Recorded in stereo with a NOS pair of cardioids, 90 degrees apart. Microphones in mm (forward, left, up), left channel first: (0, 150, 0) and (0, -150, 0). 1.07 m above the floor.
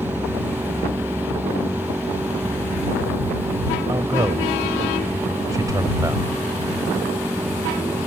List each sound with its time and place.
0.0 s a machine running: 5° right
3.9 s a man speaking: 10° right